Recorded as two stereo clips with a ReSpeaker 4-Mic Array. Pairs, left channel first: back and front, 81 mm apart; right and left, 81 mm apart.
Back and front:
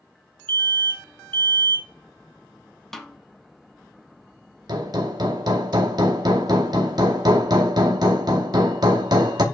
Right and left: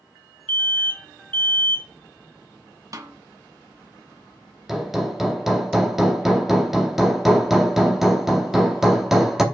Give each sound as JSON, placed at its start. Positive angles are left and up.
{"t": 0.5, "sound": "an alarm", "azimuth_deg": -140, "distance_m": 0.8}
{"t": 2.9, "sound": "a snare drum", "azimuth_deg": 95, "distance_m": 0.8}
{"t": 4.7, "sound": "hammering", "azimuth_deg": 5, "distance_m": 0.9}